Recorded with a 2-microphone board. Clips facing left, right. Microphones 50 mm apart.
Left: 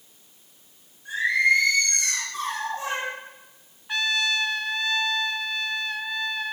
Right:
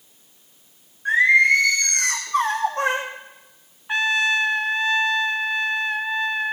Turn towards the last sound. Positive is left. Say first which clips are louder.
# right 5 dB
turn(degrees=-30)  # may be behind; listen again after turning